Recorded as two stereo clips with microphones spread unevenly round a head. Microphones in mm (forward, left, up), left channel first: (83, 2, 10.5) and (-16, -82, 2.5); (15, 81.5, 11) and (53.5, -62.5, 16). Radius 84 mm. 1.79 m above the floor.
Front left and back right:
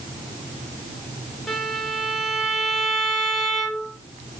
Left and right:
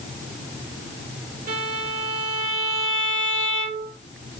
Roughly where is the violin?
Ahead right.